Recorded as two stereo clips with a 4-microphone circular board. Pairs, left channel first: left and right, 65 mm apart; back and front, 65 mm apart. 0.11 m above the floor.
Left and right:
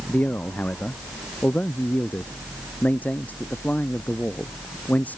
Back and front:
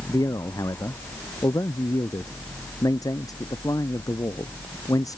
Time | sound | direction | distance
0.1 | a man speaking | 155° left | ?